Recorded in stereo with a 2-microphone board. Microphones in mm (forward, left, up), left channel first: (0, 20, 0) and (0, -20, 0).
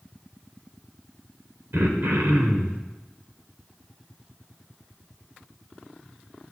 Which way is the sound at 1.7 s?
75° right (ahead or behind).